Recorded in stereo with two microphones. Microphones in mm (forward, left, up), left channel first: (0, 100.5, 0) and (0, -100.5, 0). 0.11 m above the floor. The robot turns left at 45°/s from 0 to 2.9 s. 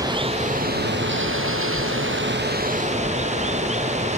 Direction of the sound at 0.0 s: 15° right.